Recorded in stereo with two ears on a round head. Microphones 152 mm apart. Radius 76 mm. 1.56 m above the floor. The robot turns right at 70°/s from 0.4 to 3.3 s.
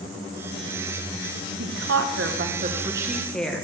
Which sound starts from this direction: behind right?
A woman speaking, at 1.6 s.